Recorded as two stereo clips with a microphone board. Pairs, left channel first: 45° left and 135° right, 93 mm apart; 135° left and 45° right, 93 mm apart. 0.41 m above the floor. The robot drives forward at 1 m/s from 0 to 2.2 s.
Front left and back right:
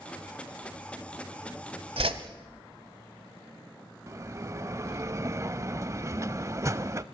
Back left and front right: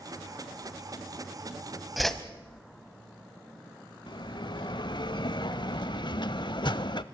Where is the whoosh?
135° right, 1.1 m; by 2.2 s 140° right, 1.3 m.